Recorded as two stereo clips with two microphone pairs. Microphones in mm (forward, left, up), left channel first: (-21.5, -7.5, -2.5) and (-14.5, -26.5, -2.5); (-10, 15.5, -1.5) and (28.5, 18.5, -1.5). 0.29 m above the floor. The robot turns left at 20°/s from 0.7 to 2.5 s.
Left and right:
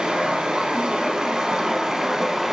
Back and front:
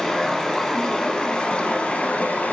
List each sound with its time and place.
0.0 s running water: 95° right, 0.9 m; by 2.5 s 130° right, 0.9 m